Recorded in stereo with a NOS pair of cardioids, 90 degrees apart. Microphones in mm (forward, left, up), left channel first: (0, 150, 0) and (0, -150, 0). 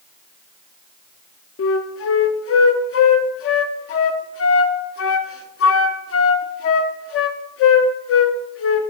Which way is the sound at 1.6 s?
50° left.